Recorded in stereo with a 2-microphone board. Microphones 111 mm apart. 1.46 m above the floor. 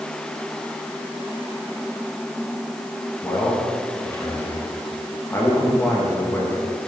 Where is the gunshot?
I don't hear a gunshot.